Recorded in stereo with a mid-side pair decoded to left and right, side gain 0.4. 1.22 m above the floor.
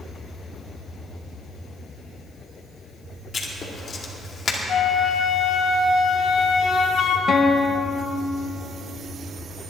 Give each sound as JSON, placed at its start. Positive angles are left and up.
{"t": 3.3, "sound": "writing", "azimuth_deg": 50, "distance_m": 2.5}
{"t": 4.7, "sound": "a flute", "azimuth_deg": 65, "distance_m": 1.2}
{"t": 7.3, "sound": "a guitar", "azimuth_deg": 55, "distance_m": 1.2}